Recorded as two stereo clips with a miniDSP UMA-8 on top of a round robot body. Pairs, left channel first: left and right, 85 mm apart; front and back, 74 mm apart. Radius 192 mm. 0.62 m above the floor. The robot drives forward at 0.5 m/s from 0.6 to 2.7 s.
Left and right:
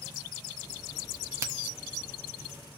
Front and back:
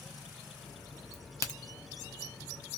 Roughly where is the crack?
Ahead right.